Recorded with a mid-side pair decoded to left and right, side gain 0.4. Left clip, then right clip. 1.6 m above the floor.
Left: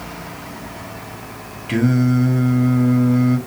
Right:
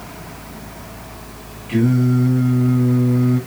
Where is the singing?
65° left, 1.7 m.